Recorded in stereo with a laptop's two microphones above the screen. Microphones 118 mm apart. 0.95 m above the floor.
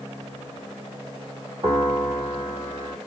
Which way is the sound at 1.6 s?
60° right (ahead or behind).